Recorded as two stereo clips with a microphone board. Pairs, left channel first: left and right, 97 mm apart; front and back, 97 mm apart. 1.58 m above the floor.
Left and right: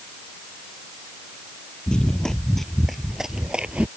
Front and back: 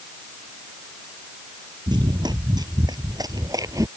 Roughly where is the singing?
No singing in this recording.